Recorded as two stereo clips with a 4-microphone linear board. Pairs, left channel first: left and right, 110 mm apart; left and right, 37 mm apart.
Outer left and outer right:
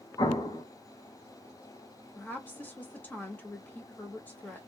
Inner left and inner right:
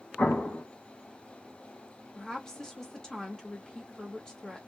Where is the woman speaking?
15° left (ahead or behind), 1.0 m.